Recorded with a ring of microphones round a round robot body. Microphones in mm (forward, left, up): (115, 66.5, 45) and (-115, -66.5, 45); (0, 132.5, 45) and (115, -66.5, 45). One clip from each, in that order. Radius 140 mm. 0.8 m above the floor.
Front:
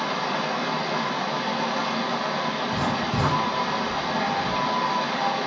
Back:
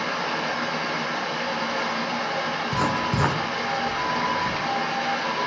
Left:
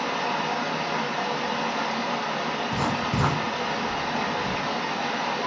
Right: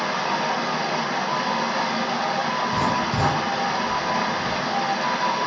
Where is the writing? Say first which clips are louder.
Back 1 dB, right 4 dB; 160° right, 0.5 m.